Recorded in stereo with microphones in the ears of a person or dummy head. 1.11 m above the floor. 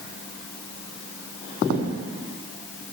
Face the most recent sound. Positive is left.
No sound to turn to.